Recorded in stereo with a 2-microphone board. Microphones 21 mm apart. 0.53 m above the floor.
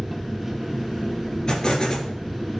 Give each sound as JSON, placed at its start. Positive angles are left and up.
{"t": 0.0, "sound": "an engine running", "side_deg": -5, "distance_m": 2.5}
{"t": 1.5, "sound": "an explosion", "side_deg": 40, "distance_m": 3.0}